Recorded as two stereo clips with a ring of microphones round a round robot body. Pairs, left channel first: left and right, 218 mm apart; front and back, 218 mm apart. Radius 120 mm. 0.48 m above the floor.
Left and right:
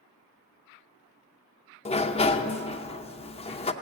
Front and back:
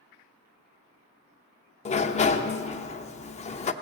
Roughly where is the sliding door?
Ahead left.